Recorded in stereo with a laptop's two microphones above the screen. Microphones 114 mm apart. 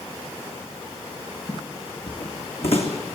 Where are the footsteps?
60° left (ahead or behind), 2 m.